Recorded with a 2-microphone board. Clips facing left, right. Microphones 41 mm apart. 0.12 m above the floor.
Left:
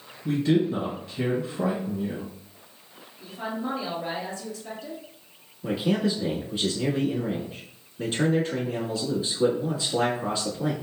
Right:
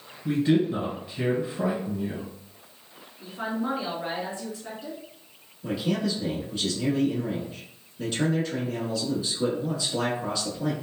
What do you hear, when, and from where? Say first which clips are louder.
0.2 s a man speaking: even; 15° right (ahead or behind), 1.4 m
3.2 s a woman speaking: right 2 dB; 25° right (ahead or behind), 1.4 m
5.6 s a man speaking: left 2 dB; 20° left (ahead or behind), 1.1 m